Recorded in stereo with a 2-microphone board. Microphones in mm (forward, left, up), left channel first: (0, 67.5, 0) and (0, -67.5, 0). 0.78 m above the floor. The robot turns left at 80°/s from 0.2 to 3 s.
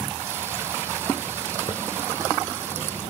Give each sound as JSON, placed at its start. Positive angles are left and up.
{"t": 1.7, "sound": "a hiss", "side_deg": 40, "distance_m": 1.9}